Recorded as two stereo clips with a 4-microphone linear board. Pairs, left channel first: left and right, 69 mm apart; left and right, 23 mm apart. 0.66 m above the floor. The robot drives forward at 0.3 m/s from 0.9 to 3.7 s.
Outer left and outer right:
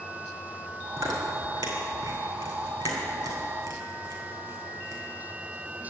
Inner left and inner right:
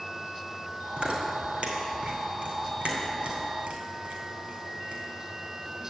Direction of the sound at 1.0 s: 80° right.